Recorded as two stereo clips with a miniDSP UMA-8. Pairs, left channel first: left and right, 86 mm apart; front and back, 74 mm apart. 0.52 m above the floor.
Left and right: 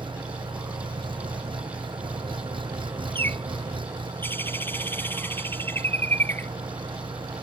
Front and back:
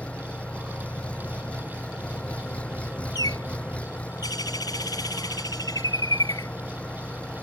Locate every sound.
0.0 s an engine running: 75° right
3.1 s a bird: 25° left